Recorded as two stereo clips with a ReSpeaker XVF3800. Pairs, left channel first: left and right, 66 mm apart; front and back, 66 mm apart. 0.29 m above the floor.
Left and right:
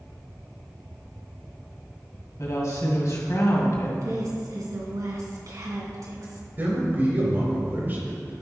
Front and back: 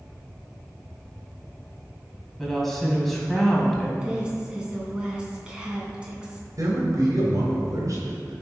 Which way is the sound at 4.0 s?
105° right.